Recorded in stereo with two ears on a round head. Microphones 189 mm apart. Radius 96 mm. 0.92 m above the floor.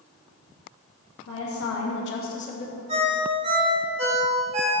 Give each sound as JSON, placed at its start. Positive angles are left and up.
{"t": 1.3, "sound": "a woman speaking", "side_deg": 60, "distance_m": 0.9}
{"t": 2.9, "sound": "a ringtone", "side_deg": -30, "distance_m": 1.4}